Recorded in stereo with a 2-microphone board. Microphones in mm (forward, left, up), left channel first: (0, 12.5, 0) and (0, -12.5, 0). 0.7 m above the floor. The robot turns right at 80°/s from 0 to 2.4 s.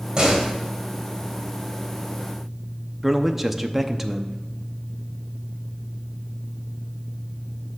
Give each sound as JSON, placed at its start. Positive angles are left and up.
{"t": 0.2, "sound": "a door slam", "azimuth_deg": -35, "distance_m": 2.0}
{"t": 3.0, "sound": "a man speaking", "side_deg": -10, "distance_m": 0.7}